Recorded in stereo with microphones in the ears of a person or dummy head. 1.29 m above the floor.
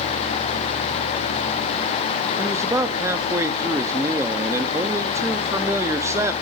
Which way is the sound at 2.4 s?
15° right (ahead or behind).